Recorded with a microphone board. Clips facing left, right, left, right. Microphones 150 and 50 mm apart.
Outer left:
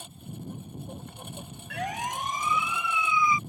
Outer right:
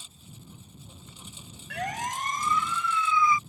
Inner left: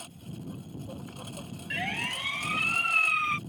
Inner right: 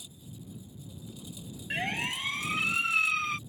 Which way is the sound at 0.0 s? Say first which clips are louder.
Outer left 10 dB, inner left 6 dB; 55° left (ahead or behind).